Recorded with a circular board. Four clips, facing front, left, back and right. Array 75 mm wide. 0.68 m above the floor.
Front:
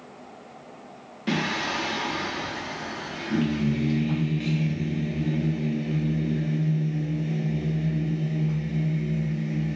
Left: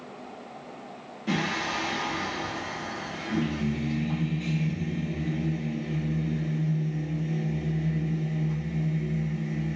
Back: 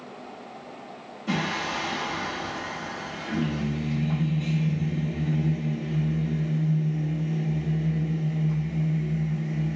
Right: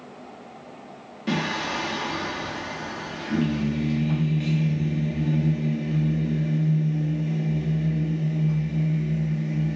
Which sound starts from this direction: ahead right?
Singing, at 1.3 s.